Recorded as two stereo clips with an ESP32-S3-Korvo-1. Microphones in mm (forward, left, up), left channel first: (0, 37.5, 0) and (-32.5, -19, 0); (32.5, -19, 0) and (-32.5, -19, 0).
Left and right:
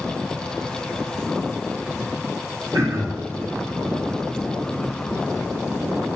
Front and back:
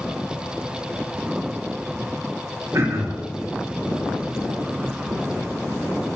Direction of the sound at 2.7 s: 150° right.